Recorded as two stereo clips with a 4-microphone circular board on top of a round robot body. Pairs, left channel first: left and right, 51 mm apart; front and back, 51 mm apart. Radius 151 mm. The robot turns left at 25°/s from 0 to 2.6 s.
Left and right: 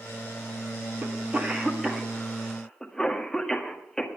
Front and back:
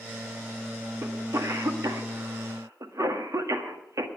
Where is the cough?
150° right, 1.9 m; by 4.1 s 170° left, 1.9 m.